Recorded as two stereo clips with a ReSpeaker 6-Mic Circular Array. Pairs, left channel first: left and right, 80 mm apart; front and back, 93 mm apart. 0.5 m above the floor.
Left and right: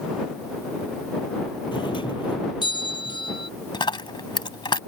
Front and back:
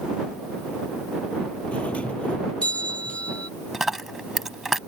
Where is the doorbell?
75° left.